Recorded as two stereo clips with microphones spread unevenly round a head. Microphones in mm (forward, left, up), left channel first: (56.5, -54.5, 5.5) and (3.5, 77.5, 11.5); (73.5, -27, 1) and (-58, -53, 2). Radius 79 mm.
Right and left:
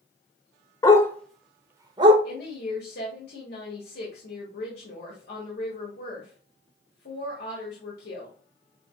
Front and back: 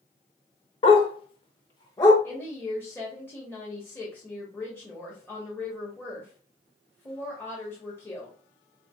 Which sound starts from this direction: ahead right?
A woman speaking, at 2.2 s.